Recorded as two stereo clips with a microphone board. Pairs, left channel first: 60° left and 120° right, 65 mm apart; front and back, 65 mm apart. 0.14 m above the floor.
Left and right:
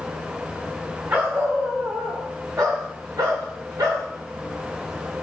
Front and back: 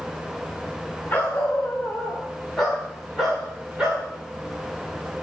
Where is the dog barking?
65° right, 6 m; by 4.1 s 110° right, 5.5 m.